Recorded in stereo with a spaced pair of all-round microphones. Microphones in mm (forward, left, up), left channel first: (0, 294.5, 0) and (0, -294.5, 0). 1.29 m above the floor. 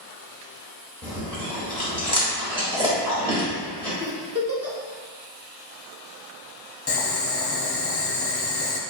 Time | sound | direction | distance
1.0 | chewing | 10° right (ahead or behind) | 1.3 m
4.0 | a giggle | 25° right (ahead or behind) | 0.7 m
6.9 | boiling | 45° left (ahead or behind) | 0.5 m